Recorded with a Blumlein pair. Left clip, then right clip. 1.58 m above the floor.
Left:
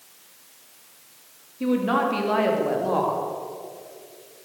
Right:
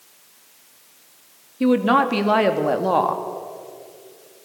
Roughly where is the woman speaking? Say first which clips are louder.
Right 5 dB; ahead right.